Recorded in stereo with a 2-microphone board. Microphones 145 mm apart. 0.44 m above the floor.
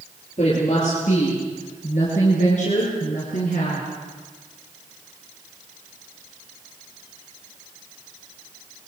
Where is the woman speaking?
55° left (ahead or behind), 9 m; by 3.9 s 65° left (ahead or behind), 5.5 m.